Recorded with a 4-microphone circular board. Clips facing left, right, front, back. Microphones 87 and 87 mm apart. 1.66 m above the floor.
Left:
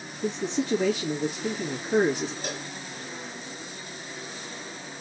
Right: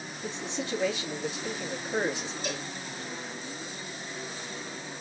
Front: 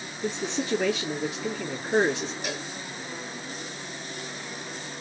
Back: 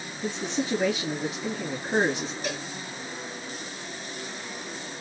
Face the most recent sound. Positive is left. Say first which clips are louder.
# even, back 1 dB
turn(degrees=75)